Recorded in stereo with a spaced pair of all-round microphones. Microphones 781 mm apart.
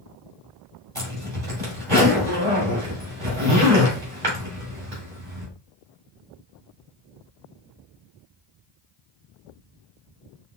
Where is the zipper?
25° right (ahead or behind), 2.5 m.